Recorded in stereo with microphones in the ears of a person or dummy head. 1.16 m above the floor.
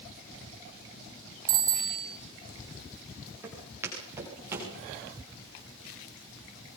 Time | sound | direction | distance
1.5 | a bicycle bell | 60° right (ahead or behind) | 5.5 m
3.4 | footsteps | 20° right (ahead or behind) | 9 m